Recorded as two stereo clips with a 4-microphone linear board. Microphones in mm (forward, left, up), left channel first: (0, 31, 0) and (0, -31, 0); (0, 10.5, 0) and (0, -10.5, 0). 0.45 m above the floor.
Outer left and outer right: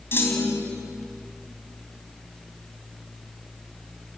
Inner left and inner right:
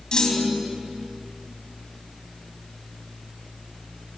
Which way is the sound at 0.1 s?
35° left (ahead or behind).